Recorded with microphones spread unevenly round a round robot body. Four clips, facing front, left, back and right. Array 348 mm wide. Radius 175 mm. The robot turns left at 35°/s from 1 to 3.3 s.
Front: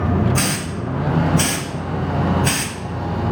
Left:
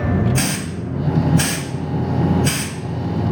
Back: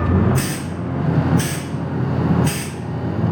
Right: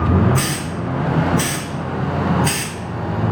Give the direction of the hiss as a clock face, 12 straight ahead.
11 o'clock.